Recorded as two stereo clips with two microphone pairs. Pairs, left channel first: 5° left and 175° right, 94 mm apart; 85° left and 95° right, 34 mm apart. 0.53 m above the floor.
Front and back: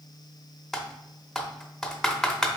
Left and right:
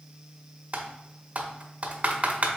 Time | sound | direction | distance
0.7 | typing on a keyboard | 80° right | 0.6 m